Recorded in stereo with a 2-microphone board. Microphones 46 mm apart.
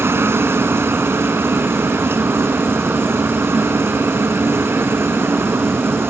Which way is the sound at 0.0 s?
65° right (ahead or behind).